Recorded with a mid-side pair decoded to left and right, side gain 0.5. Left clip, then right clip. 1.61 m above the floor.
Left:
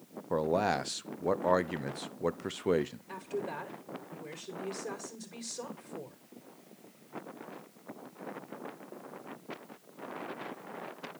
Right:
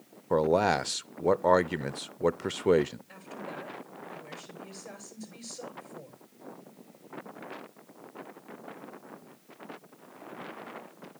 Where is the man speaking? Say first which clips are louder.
Right 5 dB; 30° right, 0.5 m.